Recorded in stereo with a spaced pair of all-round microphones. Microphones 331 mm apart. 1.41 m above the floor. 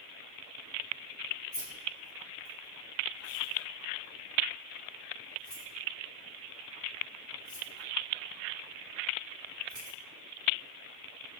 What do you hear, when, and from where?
1.5 s keys jangling: 10° left (ahead or behind), 1.7 m